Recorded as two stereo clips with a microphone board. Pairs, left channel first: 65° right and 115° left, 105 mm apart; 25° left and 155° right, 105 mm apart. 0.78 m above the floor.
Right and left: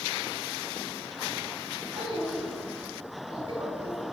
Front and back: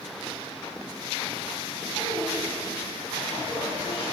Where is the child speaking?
75° left, 4 m.